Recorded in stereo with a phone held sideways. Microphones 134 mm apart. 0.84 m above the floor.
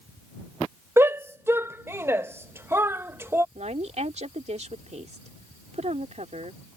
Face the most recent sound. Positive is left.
turn(degrees=-60)  # may be behind; listen again after turning